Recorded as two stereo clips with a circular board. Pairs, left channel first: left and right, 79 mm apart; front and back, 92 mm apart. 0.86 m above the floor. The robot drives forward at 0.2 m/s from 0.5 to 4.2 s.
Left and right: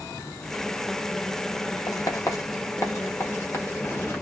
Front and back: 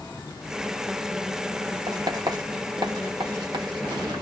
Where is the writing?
135° left, 1.2 m; by 4.2 s 150° left, 1.6 m.